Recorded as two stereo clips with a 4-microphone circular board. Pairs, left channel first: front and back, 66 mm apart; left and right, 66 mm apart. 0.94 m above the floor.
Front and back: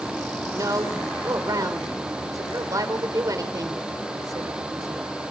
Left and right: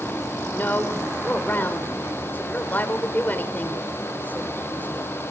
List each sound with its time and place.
0.5 s a woman speaking: 150° left, 3.5 m